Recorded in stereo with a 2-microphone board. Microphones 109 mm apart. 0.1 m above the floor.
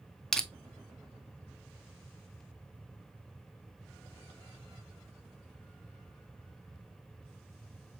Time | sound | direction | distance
0.3 | crushing | 5° left (ahead or behind) | 0.5 m